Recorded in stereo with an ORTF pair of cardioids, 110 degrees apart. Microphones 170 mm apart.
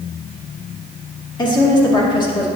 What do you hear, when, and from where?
1.4 s a woman speaking: 25° left, 2 m